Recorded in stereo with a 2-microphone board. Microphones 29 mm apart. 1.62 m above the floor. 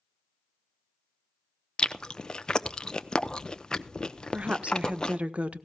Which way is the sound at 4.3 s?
40° right (ahead or behind).